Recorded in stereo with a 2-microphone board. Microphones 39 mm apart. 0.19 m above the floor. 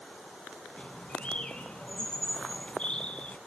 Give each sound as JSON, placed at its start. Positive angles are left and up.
{"t": 0.8, "sound": "a bird", "side_deg": 30, "distance_m": 1.8}